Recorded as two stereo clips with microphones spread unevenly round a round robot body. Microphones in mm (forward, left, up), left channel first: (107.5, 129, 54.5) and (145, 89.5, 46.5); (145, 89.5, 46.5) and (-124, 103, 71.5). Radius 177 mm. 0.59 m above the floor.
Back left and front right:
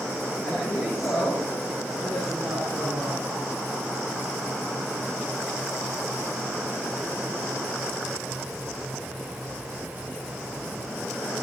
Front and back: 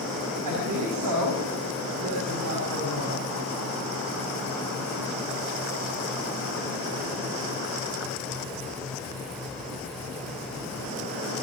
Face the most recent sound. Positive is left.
turn(degrees=-135)